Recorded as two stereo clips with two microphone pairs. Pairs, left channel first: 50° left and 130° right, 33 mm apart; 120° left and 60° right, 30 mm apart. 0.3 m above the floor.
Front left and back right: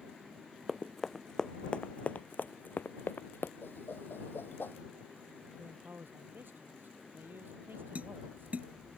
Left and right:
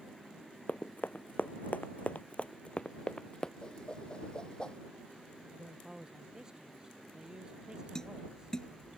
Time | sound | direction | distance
0.7 | running footsteps | 145° left | ?
3.6 | a whoosh | 60° left | ?
5.6 | a man speaking | 125° right | ?
8.0 | tapping | 175° right | ?